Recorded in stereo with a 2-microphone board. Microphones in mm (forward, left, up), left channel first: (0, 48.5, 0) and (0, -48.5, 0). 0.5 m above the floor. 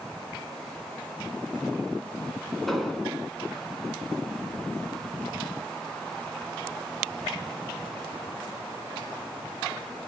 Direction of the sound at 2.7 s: Centre (ahead or behind).